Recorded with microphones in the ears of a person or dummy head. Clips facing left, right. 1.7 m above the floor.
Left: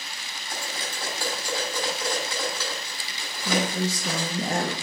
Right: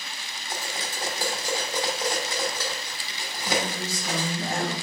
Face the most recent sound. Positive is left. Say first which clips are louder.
# left 3 dB
turn(degrees=55)  # may be behind; listen again after turning